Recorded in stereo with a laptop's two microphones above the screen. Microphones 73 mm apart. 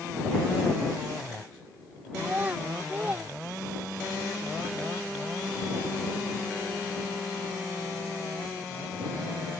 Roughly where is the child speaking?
Right.